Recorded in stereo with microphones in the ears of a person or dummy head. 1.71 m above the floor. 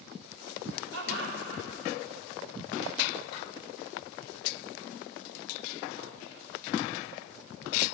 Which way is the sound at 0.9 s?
70° right (ahead or behind).